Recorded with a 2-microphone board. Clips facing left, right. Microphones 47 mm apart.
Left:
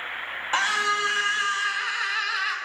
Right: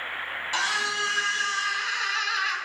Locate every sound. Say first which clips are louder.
0.5 s a scream: left 4 dB; 35° left (ahead or behind), 2 m; by 2.6 s 5° left (ahead or behind), 1.4 m